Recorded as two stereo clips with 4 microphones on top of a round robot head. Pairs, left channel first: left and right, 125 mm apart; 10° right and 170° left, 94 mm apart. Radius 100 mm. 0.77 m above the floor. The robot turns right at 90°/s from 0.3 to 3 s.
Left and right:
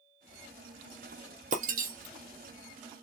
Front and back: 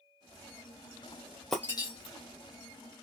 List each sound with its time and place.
1.5 s breaking glass: 95° right, 1.2 m; by 3.0 s 35° left, 1.2 m